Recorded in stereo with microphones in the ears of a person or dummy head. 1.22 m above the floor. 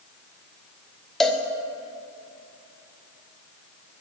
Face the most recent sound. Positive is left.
turn(degrees=0)  # may be behind; listen again after turning